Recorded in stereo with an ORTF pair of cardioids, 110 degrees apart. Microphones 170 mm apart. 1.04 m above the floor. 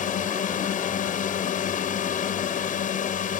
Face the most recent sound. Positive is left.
turn(degrees=50)